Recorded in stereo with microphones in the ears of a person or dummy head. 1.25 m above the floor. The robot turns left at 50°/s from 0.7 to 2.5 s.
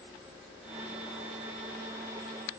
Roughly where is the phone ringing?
No phone ringing in this recording.